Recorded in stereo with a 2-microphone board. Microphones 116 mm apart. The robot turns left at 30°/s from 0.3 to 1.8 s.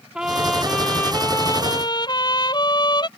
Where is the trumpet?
175° right; by 3.1 s 140° left.